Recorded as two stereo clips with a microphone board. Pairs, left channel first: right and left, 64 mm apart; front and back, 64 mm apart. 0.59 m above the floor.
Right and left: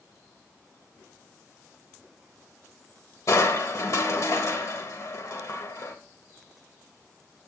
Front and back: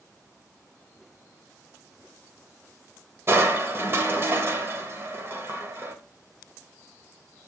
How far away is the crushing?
About 1.0 m.